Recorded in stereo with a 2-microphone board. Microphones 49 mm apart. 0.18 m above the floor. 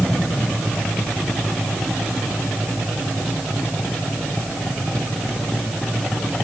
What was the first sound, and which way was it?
Only background noise.